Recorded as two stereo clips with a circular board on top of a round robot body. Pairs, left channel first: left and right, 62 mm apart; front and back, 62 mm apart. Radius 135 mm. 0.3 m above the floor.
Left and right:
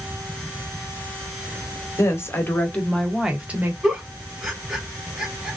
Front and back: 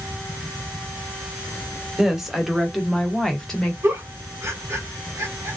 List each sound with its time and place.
2.0 s a woman speaking: 100° left, 1.4 m; by 3.7 s 70° right, 1.1 m
3.8 s a giggle: 170° right, 2.0 m